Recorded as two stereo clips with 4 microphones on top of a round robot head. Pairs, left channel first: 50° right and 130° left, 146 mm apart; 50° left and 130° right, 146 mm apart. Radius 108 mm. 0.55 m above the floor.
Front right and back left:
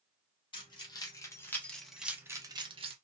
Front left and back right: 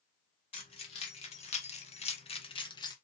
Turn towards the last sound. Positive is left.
turn(degrees=105)